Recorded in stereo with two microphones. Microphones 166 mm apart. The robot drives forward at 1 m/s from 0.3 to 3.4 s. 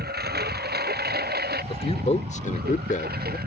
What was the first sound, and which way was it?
A lawn mower, 75° right (ahead or behind).